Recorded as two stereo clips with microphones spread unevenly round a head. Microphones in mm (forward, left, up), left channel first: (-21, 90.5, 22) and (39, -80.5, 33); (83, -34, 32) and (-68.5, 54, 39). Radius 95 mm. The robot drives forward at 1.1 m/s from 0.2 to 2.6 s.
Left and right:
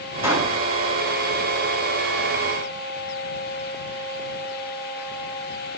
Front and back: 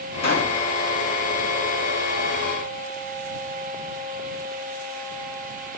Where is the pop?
5° left, 9.5 m.